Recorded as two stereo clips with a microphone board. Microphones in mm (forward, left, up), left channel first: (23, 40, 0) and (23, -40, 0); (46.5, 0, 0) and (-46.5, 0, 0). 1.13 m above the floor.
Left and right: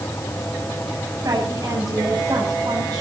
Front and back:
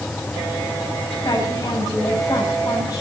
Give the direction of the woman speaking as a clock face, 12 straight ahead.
2 o'clock.